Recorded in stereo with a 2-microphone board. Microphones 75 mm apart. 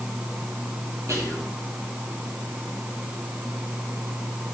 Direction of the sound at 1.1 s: 45° right (ahead or behind).